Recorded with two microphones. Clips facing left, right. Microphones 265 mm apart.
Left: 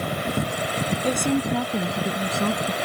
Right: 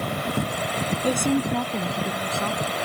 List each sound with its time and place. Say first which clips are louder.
1.0 s a woman speaking: right 1 dB; 10° right (ahead or behind); by 2.8 s 45° left (ahead or behind)